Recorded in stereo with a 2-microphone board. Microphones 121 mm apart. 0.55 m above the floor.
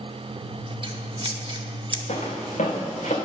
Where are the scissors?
40° right (ahead or behind), 0.8 m.